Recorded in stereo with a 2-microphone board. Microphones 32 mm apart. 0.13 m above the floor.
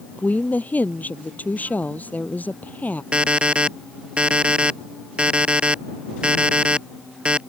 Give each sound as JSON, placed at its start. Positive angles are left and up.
{"t": 0.2, "sound": "a woman speaking", "side_deg": 50}
{"t": 3.1, "sound": "an alarm clock", "side_deg": -35}